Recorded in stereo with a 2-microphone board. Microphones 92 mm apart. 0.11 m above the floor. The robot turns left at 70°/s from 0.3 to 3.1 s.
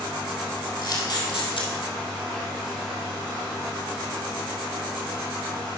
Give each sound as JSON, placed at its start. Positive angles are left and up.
{"t": 0.8, "sound": "a camera shutter", "side_deg": 40, "distance_m": 2.5}